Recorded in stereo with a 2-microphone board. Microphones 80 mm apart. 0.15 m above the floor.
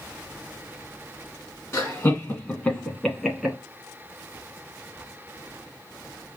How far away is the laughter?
About 1.7 m.